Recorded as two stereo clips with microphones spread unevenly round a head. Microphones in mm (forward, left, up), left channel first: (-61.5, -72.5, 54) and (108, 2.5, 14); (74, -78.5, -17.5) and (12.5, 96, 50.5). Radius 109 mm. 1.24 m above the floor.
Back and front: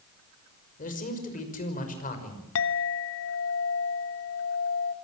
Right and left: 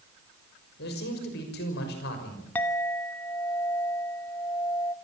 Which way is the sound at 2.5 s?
160° right.